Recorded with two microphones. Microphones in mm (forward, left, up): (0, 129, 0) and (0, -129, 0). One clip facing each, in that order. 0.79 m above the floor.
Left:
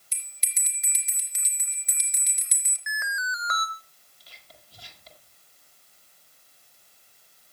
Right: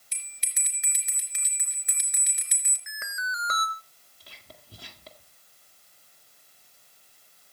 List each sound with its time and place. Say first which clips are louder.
0.1 s a bell: right 2 dB; 70° right (ahead or behind), 4 m
2.9 s an alarm: left 3 dB; 35° right (ahead or behind), 1.9 m
4.2 s whispering: right 4 dB; 60° right (ahead or behind), 1.8 m